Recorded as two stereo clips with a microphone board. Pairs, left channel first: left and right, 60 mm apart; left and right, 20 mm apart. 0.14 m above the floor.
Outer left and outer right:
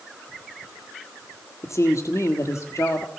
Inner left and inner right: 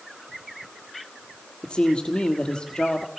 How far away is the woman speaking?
About 4 m.